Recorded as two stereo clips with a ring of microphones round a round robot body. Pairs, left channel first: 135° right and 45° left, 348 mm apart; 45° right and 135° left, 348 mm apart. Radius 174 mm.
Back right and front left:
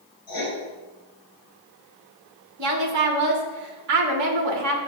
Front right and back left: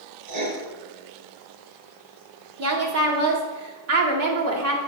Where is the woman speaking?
85° left, 1.8 m.